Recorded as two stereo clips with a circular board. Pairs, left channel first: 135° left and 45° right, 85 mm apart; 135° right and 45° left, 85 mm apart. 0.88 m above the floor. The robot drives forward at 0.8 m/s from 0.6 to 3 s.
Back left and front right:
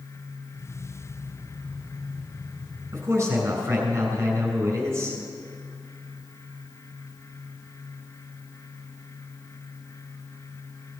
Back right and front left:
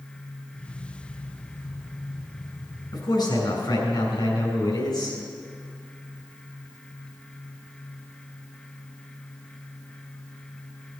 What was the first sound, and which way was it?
A man speaking, 105° right.